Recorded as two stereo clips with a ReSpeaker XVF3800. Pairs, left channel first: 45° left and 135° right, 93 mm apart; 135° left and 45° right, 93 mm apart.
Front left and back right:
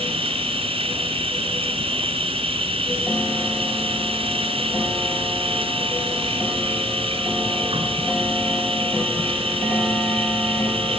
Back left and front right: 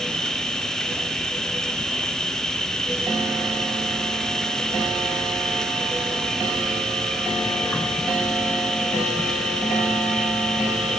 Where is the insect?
140° right, 1.3 m.